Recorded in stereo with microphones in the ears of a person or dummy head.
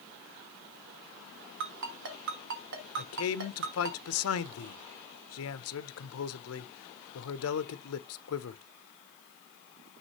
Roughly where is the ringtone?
Right.